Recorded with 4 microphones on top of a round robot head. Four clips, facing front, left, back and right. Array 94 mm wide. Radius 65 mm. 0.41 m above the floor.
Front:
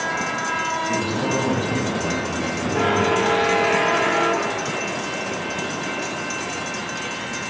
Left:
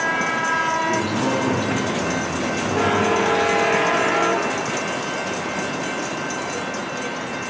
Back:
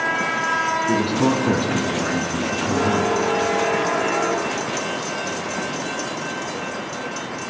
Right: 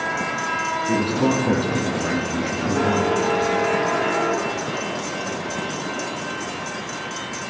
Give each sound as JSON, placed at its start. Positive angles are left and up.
{"t": 0.9, "sound": "a man speaking", "azimuth_deg": -160, "distance_m": 4.0}